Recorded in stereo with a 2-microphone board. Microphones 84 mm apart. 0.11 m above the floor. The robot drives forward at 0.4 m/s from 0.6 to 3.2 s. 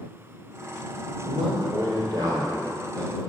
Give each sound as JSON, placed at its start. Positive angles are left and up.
{"t": 1.2, "sound": "a man speaking", "side_deg": -60, "distance_m": 2.0}